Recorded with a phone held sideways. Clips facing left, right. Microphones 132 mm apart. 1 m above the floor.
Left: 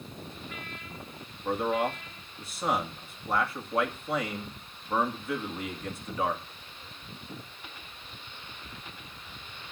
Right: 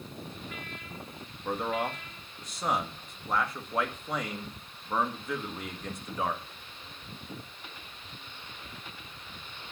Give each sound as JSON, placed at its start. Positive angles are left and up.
{"t": 1.4, "sound": "a man speaking", "side_deg": 5, "distance_m": 1.8}